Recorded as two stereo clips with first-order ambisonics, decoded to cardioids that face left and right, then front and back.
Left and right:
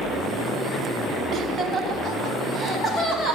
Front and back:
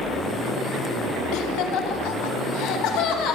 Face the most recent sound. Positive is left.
turn(degrees=20)